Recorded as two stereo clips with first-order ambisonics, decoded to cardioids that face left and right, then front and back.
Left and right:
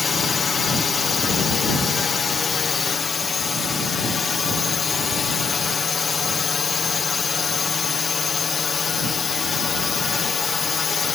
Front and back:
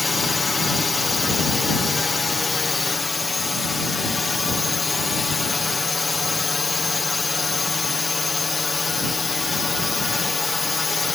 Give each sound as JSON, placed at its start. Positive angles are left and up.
{"t": 0.0, "sound": "a drone", "azimuth_deg": 60}